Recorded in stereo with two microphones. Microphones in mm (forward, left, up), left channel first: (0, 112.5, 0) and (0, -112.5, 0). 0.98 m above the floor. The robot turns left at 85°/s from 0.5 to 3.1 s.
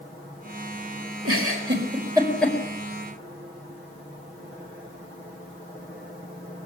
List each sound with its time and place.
1.2 s a giggle: 80° right, 4.5 m; by 2.6 s 20° left (ahead or behind), 4.5 m